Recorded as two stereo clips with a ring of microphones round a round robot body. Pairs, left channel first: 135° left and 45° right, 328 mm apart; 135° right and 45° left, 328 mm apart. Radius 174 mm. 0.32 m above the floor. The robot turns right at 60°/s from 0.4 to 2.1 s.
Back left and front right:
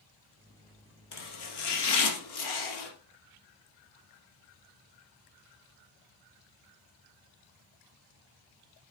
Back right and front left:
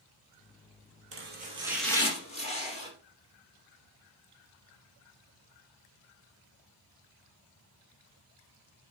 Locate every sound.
1.1 s chopping: 95° left, 2.5 m; by 2.9 s 155° left, 2.5 m